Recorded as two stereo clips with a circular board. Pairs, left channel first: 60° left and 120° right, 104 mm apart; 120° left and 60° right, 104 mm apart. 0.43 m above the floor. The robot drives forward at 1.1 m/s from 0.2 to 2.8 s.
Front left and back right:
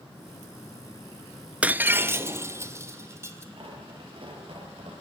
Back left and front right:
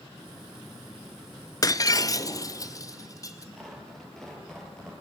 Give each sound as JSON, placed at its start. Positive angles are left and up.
{"t": 1.6, "sound": "breaking glass", "azimuth_deg": 165, "distance_m": 0.5}
{"t": 3.6, "sound": "tearing paper", "azimuth_deg": -155, "distance_m": 8.0}